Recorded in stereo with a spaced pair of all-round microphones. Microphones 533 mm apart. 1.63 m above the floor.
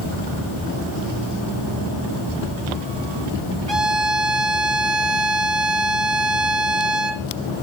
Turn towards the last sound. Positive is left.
turn(degrees=-50)  # may be behind; listen again after turning